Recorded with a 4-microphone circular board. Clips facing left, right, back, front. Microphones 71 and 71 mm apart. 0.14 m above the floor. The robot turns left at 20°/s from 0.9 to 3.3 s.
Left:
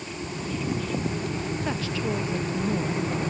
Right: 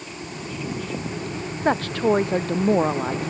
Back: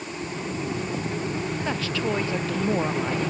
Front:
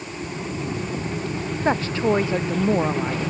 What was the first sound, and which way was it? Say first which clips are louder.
A woman speaking: right 12 dB, front 9 dB; 50° right.